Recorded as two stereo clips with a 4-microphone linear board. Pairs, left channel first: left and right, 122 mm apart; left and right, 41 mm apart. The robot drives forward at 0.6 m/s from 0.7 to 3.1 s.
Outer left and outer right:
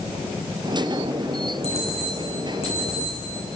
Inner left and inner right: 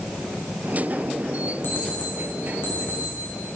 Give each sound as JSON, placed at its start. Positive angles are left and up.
{"t": 1.6, "sound": "an alarm clock", "side_deg": 55, "distance_m": 3.5}